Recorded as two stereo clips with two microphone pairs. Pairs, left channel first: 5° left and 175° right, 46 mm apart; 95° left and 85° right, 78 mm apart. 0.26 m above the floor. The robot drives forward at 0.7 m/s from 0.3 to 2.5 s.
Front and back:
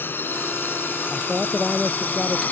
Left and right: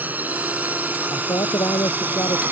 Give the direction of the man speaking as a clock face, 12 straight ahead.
9 o'clock.